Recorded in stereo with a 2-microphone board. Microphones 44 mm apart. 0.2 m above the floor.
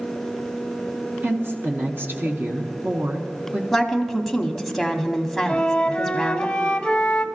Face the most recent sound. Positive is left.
turn(degrees=20)  # may be behind; listen again after turning